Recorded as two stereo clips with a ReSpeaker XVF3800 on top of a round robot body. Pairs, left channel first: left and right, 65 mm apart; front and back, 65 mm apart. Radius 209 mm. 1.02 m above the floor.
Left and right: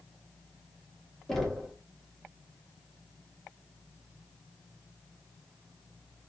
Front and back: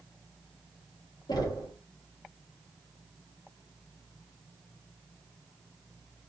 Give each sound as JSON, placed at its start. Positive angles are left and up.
{"t": 1.3, "sound": "knocking", "azimuth_deg": 5, "distance_m": 2.5}